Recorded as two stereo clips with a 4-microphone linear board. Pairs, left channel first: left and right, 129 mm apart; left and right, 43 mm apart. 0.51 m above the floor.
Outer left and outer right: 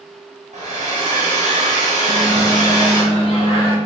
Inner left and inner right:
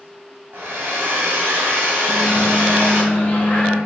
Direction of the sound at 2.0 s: 45° left (ahead or behind).